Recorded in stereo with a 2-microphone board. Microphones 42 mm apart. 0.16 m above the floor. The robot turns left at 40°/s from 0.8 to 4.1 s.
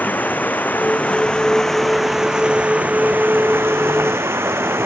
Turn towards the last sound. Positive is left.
turn(degrees=-90)